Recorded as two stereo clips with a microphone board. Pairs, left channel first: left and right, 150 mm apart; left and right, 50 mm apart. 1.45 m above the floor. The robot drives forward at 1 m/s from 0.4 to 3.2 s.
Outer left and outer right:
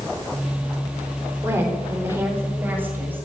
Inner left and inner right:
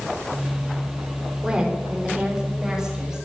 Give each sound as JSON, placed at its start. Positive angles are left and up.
{"t": 1.4, "sound": "a woman speaking", "side_deg": -20, "distance_m": 3.5}